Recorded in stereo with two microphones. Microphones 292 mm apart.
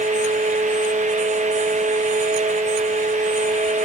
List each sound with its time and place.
Only background noise.